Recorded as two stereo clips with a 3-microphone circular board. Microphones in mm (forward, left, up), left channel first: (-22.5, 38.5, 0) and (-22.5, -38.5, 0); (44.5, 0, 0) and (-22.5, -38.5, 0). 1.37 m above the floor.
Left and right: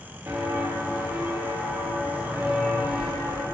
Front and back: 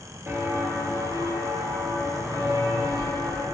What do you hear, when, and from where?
0.3 s footsteps: 115° right, 1.8 m; by 3.4 s 155° right, 2.5 m